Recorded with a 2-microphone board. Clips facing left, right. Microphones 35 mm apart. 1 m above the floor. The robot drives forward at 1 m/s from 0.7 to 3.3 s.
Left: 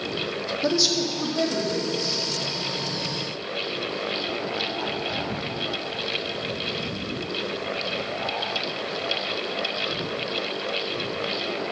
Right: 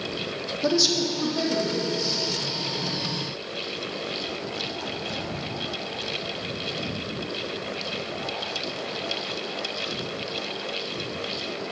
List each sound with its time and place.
0.6 s a woman speaking: centre (ahead or behind), 0.9 m